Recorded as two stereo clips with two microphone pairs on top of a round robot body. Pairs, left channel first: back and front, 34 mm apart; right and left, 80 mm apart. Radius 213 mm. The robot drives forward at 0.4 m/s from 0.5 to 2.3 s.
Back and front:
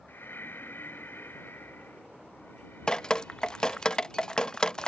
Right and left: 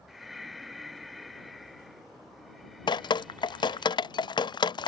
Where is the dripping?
110° right.